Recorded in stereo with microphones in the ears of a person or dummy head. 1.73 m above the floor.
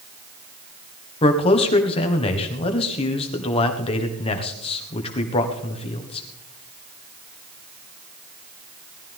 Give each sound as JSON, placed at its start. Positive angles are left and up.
{"t": 1.2, "sound": "a man speaking", "side_deg": 30, "distance_m": 1.6}